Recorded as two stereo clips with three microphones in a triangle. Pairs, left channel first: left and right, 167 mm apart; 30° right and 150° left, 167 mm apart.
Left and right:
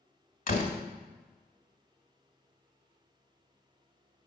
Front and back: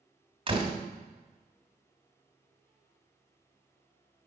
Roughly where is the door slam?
Left.